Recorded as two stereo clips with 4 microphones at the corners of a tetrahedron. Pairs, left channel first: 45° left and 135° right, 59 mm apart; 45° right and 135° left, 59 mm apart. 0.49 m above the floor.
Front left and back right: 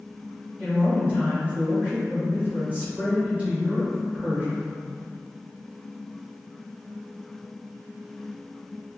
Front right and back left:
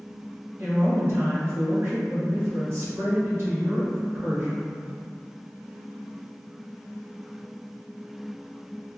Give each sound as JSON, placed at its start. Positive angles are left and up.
{"t": 0.6, "sound": "a woman speaking", "azimuth_deg": 165, "distance_m": 1.7}